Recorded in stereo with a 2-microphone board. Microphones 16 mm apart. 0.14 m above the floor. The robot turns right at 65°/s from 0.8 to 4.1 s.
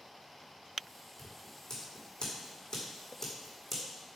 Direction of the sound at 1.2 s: 20° left (ahead or behind).